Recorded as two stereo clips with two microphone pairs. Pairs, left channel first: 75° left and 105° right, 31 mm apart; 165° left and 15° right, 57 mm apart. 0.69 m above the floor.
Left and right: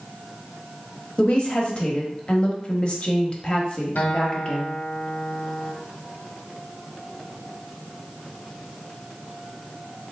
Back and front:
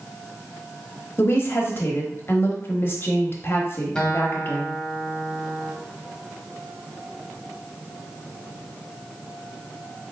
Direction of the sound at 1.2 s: 125° left.